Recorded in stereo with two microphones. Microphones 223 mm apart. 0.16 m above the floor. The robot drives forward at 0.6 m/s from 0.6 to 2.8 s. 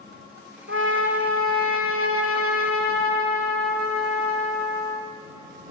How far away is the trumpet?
About 2.5 m.